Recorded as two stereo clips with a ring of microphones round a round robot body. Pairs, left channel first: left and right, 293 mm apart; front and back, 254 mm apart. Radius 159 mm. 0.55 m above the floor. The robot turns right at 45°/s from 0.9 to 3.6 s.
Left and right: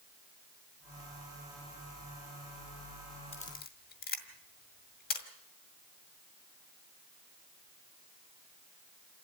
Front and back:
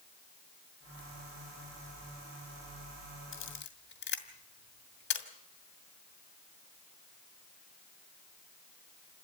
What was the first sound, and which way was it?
A camera shutter, 25° left.